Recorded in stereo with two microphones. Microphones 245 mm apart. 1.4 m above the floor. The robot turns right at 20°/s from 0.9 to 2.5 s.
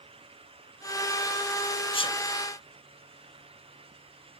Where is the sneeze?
25° left (ahead or behind), 0.6 m; by 2.2 s 20° left (ahead or behind), 0.6 m.